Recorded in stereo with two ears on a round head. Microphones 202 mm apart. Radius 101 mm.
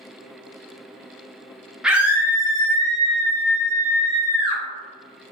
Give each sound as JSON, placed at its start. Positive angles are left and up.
{"t": 1.8, "sound": "a scream", "side_deg": -5, "distance_m": 0.8}